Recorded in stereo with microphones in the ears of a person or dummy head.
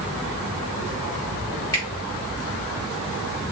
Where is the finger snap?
15° left (ahead or behind), 3 m.